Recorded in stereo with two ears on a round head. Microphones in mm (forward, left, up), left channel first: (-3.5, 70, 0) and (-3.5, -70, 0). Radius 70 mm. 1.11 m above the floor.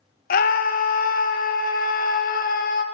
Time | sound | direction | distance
0.3 | a scream | 55° left (ahead or behind) | 0.9 m